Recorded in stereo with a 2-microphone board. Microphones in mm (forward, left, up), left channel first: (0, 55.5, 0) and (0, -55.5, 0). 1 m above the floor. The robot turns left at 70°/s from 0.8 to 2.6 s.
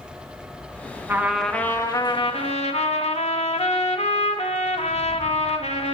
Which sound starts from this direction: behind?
A trumpet, at 1.1 s.